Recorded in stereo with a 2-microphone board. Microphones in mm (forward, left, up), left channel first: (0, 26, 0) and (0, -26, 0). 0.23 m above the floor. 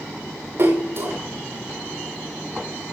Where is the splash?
50° right (ahead or behind), 7 m.